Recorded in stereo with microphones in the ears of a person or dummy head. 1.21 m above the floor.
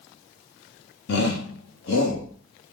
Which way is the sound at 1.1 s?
60° left (ahead or behind).